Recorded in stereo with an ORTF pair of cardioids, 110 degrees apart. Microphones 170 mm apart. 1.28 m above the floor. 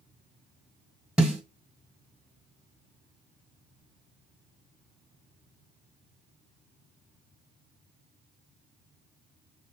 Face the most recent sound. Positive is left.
turn(degrees=-5)